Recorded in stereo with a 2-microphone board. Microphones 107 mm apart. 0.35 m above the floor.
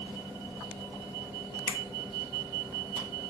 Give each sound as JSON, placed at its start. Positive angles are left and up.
{"t": 1.7, "sound": "a finger snap", "side_deg": 30, "distance_m": 0.7}